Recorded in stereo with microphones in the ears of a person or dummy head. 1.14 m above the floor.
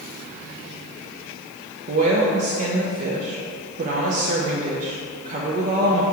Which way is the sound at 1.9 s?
45° right (ahead or behind).